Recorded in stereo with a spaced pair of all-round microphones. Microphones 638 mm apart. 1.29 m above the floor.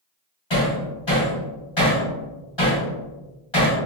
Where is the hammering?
45° left (ahead or behind), 1.4 m.